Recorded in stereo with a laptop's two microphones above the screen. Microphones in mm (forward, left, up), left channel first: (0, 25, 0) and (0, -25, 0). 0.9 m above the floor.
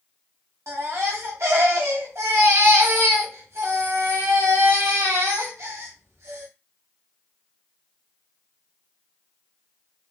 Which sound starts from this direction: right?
A baby crying, at 0.7 s.